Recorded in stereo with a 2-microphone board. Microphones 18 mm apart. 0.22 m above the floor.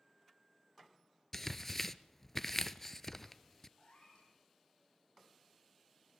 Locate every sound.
1.3 s tearing paper: 15° left (ahead or behind), 0.5 m
3.8 s a cat meowing: 60° left (ahead or behind), 4 m